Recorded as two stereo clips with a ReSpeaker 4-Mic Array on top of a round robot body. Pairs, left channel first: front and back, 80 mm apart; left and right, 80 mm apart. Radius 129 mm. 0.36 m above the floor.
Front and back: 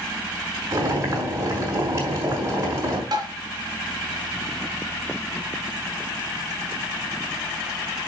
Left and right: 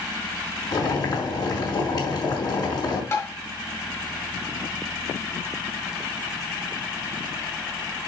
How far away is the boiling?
About 6 m.